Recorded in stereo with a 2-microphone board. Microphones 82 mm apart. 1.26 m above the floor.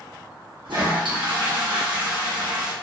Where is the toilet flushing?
65° right (ahead or behind), 1.0 m.